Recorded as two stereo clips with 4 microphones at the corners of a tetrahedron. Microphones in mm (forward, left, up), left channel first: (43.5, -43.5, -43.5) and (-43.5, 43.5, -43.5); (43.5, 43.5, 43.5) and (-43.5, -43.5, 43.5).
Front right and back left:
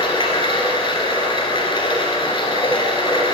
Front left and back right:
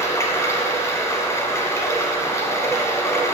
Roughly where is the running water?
Ahead.